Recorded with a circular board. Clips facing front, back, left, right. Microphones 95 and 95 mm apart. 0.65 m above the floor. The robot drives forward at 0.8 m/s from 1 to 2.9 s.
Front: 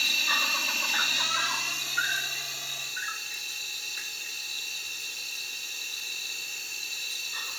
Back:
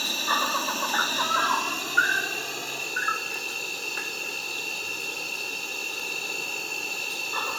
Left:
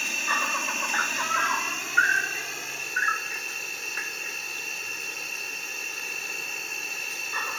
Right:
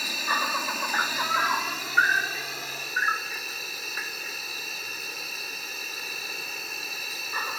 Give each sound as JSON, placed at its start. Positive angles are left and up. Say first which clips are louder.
{"t": 0.0, "sound": "an insect", "louder": "back 6 dB, right 1 dB", "azimuth_deg": -170}